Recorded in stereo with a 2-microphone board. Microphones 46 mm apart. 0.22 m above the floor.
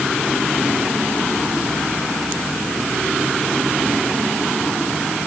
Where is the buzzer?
I don't hear a buzzer.